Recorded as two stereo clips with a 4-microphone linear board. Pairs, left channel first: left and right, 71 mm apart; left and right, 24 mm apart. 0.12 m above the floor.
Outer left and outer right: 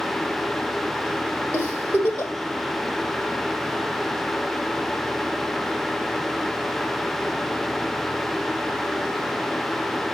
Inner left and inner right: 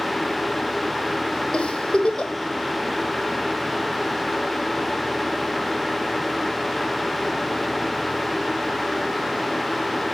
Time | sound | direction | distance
1.5 | a giggle | 30° left (ahead or behind) | 3 m